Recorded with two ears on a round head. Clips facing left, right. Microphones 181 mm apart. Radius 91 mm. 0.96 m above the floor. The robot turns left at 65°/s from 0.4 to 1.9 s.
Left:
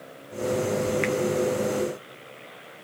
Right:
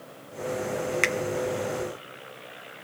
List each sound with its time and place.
1.0 s a finger snap: 55° right (ahead or behind), 1.0 m; by 1.1 s 60° right (ahead or behind), 1.0 m